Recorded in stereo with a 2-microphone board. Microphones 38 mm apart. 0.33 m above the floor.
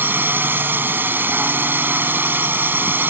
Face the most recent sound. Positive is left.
turn(degrees=-60)  # may be behind; listen again after turning